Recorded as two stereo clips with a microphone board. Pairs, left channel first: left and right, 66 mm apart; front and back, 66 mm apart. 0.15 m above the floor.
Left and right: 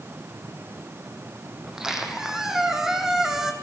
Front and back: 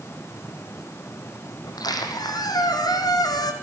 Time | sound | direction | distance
1.6 | a squeak | 10° right | 3.5 m